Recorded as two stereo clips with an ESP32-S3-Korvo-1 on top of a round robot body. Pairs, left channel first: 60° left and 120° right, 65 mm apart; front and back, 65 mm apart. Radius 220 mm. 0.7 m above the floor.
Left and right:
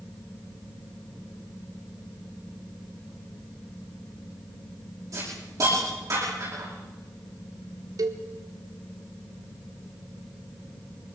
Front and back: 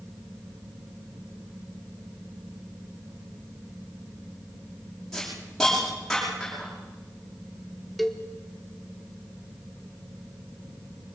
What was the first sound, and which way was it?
A hiss, 85° right.